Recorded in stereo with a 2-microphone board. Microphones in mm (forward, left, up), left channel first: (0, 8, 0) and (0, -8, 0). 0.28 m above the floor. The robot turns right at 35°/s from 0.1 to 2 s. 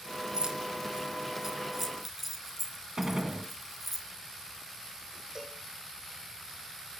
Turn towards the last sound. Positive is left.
turn(degrees=-40)  # may be behind; listen again after turning